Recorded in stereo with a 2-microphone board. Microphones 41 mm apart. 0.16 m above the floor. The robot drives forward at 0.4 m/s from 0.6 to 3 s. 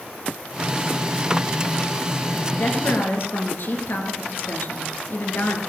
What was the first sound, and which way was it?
A woman speaking, 60° left (ahead or behind).